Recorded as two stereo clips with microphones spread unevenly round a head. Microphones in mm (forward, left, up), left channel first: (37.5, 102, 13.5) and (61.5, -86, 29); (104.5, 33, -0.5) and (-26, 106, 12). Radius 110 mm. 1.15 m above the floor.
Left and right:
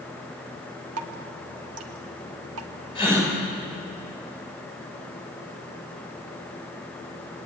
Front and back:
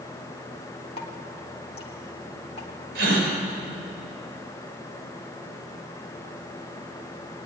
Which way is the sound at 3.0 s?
165° left.